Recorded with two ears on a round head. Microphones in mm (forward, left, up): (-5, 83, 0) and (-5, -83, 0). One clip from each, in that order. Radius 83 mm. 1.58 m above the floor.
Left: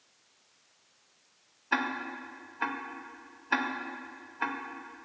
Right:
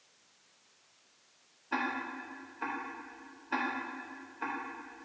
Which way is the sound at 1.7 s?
45° left (ahead or behind).